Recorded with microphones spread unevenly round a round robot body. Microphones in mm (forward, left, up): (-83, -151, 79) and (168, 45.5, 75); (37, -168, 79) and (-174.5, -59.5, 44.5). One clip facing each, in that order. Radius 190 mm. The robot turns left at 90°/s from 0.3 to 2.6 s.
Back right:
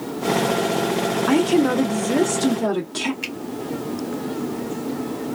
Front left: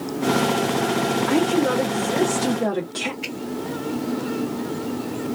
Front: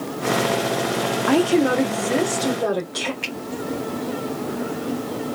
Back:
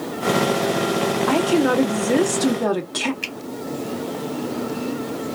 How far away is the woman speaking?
About 1.1 m.